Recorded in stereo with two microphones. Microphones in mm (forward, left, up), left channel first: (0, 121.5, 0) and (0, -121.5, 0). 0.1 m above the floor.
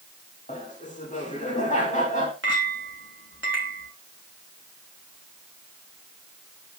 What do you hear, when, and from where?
0.5 s laughter: 30° left (ahead or behind), 5.5 m
2.4 s a clink: 55° right (ahead or behind), 3.5 m